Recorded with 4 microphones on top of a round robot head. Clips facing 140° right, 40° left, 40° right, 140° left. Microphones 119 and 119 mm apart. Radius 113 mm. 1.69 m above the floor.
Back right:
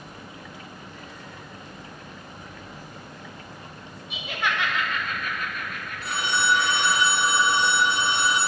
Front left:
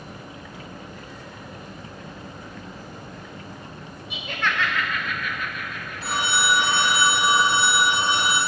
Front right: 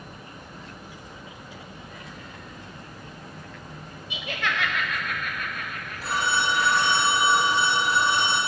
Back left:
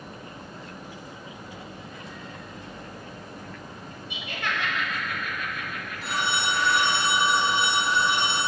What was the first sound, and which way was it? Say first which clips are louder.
Laughter: front left 1 dB, front right 2 dB; 50° right.